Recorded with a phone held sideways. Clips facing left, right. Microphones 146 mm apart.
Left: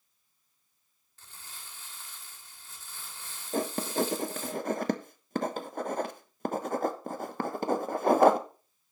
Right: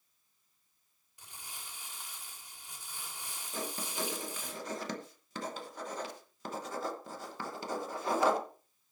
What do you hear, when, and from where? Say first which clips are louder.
1.2 s crumpling: right 1 dB; 15° right (ahead or behind), 2.5 m
3.5 s writing: left 10 dB; 55° left (ahead or behind), 1.1 m